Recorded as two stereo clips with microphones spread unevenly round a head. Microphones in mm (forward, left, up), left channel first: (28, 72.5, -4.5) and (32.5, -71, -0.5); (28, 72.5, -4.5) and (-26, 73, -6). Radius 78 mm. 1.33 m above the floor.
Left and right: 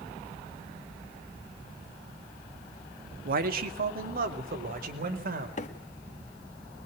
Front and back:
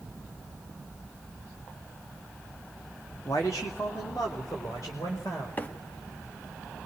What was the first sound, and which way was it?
A man speaking, 65° right.